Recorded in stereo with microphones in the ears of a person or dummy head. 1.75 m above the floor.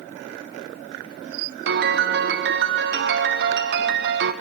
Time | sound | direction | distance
1.7 | a piano | 60° right (ahead or behind) | 1.3 m